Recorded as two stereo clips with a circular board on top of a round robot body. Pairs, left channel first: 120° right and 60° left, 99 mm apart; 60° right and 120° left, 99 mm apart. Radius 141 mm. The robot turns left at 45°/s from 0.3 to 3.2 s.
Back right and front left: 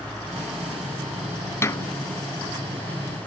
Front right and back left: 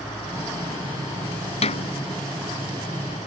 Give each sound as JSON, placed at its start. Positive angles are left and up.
{"t": 1.6, "sound": "a snare drum", "azimuth_deg": -55}